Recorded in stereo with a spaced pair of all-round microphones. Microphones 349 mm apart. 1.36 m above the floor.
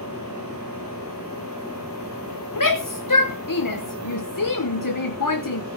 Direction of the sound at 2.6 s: 65° left (ahead or behind).